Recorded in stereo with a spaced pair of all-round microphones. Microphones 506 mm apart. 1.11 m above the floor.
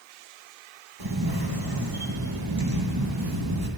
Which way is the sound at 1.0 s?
45° right (ahead or behind).